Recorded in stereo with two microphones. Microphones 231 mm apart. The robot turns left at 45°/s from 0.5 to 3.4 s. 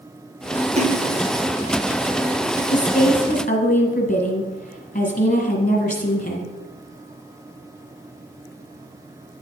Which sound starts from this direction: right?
A splash, at 0.8 s.